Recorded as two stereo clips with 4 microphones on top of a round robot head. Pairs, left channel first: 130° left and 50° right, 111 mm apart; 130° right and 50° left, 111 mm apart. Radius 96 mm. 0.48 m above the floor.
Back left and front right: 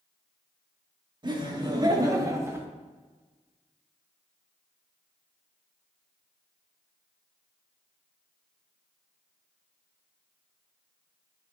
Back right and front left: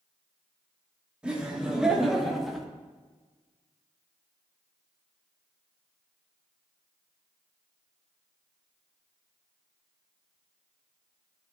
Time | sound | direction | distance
1.2 | laughter | 30° right | 1.9 m